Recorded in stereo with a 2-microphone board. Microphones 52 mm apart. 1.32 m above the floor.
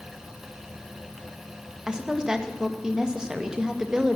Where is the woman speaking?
15° right (ahead or behind), 1.9 m.